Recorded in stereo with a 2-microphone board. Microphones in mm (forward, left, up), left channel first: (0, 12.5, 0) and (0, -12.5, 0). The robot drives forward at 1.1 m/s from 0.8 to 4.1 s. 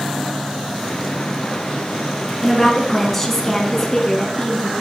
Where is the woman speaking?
10° left (ahead or behind), 1.7 m.